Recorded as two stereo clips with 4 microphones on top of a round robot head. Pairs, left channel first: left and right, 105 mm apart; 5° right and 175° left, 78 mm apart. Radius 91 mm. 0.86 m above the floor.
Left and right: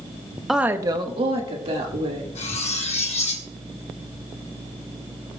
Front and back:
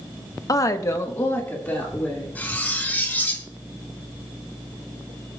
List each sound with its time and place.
0.5 s a woman speaking: straight ahead, 0.8 m; by 2.2 s 70° right, 2.5 m
2.4 s cutlery clinking: 65° left, 1.4 m